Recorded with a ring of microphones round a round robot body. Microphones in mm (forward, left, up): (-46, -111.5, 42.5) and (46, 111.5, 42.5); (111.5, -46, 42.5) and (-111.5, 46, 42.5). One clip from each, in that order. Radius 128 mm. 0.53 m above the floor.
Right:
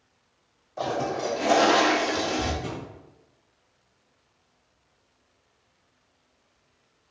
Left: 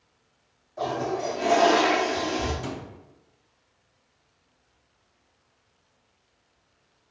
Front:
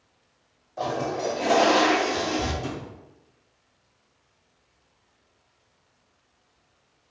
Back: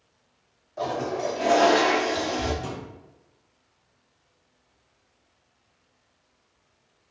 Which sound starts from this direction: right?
A toilet flushing, at 0.8 s.